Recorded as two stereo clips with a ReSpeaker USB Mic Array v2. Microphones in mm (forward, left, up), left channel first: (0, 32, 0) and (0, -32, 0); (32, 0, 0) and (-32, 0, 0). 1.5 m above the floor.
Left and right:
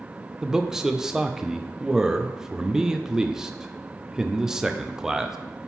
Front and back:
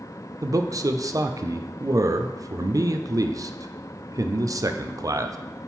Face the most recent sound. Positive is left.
turn(degrees=-170)